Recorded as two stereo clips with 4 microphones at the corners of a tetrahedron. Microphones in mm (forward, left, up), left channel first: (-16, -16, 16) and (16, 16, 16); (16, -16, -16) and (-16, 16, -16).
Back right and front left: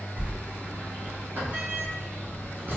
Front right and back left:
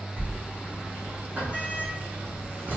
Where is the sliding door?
85° left, 1.9 m.